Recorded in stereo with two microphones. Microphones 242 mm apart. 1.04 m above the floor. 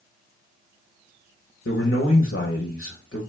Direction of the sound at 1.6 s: 60° left (ahead or behind).